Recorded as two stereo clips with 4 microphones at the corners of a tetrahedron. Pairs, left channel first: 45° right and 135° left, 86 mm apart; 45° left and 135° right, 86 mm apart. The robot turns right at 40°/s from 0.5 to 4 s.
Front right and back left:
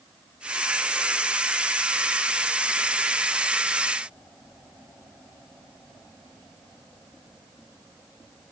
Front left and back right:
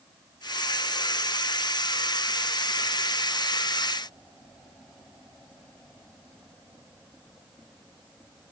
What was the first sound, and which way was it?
Only background noise.